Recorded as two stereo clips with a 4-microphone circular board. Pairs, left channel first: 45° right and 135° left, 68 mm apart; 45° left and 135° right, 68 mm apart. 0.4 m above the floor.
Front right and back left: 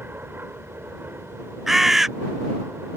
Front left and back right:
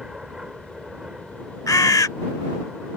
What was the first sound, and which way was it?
An aircraft, 150° left.